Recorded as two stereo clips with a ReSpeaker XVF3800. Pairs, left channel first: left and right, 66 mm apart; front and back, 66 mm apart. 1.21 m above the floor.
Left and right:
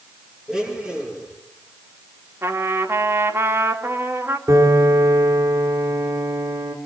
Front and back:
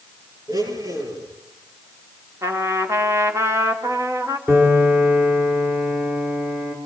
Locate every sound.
0.5 s a blender: 170° right, 9 m
2.4 s a trumpet: 140° right, 3 m
4.5 s a piano: 120° right, 5.5 m